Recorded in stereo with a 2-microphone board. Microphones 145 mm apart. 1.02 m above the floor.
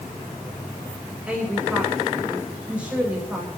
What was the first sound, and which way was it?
A woman speaking, 10° right (ahead or behind).